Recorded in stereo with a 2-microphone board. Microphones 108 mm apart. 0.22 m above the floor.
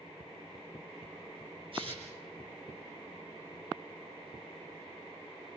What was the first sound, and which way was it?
Tearing paper, 55° right (ahead or behind).